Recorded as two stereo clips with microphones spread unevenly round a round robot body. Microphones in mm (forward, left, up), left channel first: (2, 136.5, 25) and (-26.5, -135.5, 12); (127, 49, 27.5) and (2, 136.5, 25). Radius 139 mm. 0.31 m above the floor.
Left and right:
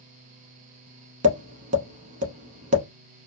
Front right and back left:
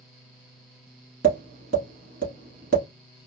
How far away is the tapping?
About 0.9 m.